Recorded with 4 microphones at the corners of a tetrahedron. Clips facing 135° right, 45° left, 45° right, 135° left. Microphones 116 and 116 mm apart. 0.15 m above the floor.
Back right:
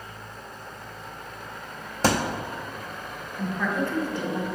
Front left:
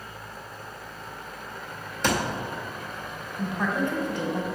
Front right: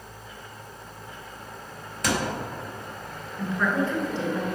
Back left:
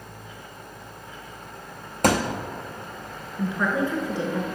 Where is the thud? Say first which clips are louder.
Back right 2 dB, back left 5 dB; 175° left, 0.7 m.